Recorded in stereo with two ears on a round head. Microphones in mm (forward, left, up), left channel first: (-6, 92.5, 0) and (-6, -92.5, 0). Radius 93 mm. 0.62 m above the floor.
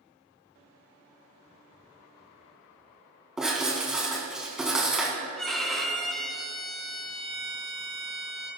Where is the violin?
Centre (ahead or behind), 2.5 m.